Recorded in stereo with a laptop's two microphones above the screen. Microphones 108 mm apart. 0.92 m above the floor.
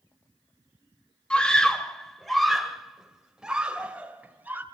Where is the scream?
10° left (ahead or behind), 4 m; by 4.6 s 15° right (ahead or behind), 4 m.